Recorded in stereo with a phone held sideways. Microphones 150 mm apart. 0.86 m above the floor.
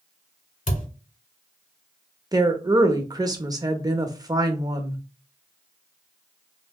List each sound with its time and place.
0.7 s a thud: 60° left (ahead or behind), 1.4 m
2.3 s a woman speaking: 25° right (ahead or behind), 0.6 m